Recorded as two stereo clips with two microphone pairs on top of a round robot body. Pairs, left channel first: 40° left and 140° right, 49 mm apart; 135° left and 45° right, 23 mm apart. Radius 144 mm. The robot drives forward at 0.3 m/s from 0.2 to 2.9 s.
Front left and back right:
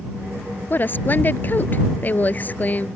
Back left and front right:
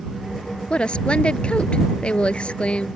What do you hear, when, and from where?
0.7 s a woman speaking: 90° left; by 2.9 s 95° left